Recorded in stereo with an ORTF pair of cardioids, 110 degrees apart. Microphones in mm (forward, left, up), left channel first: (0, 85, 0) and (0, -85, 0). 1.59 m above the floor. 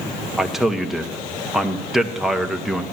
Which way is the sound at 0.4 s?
Straight ahead.